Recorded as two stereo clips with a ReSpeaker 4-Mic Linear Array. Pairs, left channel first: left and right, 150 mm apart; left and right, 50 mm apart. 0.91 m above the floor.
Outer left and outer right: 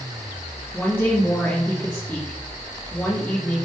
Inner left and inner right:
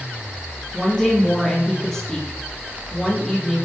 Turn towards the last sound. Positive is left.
turn(degrees=15)  # may be behind; listen again after turning